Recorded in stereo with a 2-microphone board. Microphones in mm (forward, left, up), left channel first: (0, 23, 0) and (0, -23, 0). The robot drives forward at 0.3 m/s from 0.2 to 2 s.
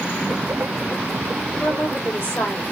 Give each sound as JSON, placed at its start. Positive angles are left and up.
{"t": 1.6, "sound": "a woman speaking", "side_deg": 45, "distance_m": 1.8}